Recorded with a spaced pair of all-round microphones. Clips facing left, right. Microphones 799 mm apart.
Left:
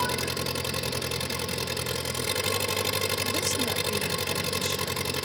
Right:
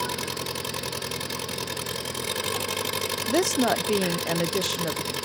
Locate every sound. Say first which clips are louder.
0.0 s an engine running: left 2 dB; 25° left (ahead or behind)
3.3 s a woman speaking: right 8 dB; 80° right